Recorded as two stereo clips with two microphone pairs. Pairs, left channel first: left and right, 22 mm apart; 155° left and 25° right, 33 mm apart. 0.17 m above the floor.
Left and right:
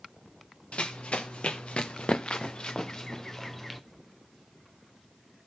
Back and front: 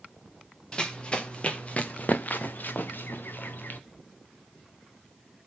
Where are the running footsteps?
90° left, 1.9 m; by 3.8 s 175° left, 1.4 m.